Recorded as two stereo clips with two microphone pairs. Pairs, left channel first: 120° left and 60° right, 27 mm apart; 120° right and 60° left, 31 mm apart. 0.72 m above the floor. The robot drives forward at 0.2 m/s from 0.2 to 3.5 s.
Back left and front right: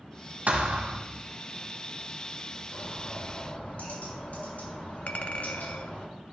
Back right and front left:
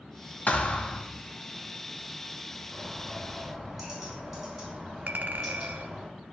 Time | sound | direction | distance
0.5 | a thud | 85° right | 1.1 m
2.7 | a bird | 140° left | 5 m
5.1 | a clink | 85° left | 0.7 m